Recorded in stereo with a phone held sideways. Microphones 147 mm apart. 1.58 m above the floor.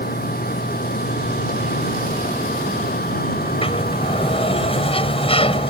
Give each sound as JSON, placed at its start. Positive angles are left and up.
{"t": 0.0, "sound": "a machine running", "side_deg": 80}
{"t": 3.4, "sound": "a sliding door", "side_deg": 40}